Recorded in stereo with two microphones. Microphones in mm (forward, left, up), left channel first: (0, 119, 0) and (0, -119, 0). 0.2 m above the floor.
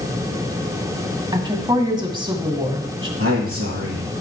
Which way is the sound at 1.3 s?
20° right (ahead or behind).